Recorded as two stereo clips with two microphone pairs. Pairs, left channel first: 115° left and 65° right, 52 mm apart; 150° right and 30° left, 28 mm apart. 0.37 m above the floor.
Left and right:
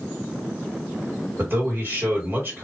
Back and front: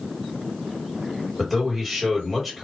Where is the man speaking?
55° right, 2.0 m.